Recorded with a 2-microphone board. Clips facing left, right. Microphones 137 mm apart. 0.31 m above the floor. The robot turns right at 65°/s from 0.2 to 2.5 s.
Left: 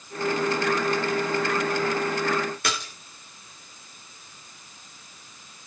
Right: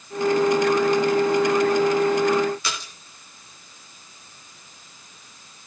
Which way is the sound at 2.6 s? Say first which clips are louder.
Left 2 dB; 60° left (ahead or behind).